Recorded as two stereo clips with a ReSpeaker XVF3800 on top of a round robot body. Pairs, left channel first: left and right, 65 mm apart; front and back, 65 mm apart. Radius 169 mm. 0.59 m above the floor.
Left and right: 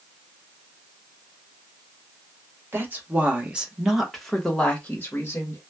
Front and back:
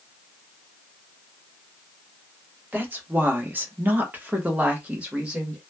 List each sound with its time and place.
2.7 s a woman speaking: 130° right, 1.4 m; by 5.6 s 110° left, 1.3 m